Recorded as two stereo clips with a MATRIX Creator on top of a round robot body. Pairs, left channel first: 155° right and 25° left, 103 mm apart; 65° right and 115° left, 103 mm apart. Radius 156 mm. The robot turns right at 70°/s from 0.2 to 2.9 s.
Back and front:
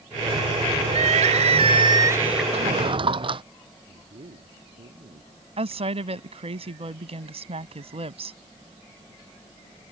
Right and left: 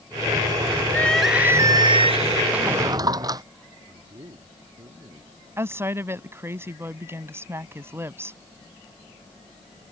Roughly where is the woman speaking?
Ahead left.